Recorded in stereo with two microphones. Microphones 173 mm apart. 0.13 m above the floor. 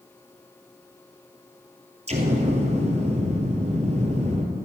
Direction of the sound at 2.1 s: 40° right (ahead or behind).